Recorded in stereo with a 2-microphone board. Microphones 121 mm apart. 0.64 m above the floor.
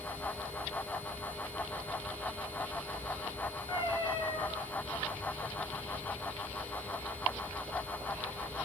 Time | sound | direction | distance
3.7 | a cat meowing | 40° left (ahead or behind) | 4.5 m